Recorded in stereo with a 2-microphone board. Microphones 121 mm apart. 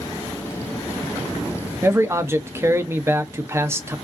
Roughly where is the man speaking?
Right.